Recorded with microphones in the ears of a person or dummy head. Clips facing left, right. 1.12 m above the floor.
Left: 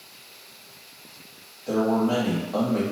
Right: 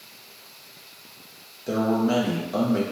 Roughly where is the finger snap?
No finger snap in this recording.